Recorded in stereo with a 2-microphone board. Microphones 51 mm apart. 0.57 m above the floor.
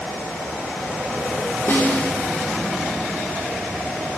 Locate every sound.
1.7 s a snare drum: 55° left (ahead or behind), 1.5 m